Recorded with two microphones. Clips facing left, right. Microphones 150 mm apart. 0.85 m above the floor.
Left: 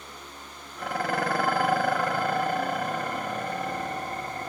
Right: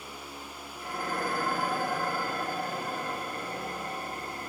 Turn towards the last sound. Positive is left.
turn(degrees=80)